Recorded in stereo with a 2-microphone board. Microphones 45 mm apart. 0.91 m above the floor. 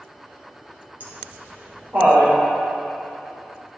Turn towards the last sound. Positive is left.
turn(degrees=-45)  # may be behind; listen again after turning